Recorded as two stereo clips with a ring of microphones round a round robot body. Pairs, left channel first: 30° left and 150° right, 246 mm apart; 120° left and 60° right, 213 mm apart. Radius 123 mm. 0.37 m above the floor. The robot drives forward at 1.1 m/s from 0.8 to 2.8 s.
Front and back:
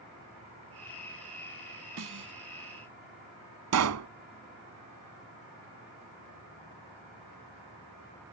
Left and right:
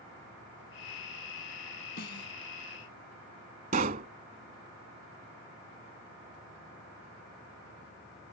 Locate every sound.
2.0 s a snare drum: 170° left
3.7 s a pop: 120° right